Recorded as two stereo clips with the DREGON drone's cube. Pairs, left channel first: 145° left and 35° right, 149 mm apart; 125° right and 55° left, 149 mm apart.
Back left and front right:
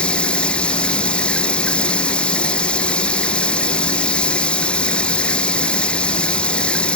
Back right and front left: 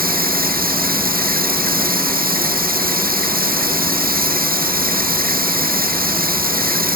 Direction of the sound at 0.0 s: 65° left.